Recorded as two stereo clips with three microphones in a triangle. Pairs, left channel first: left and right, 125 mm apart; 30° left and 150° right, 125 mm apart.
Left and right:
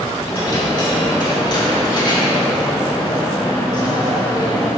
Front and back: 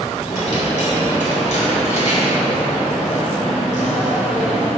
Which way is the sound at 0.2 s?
40° left.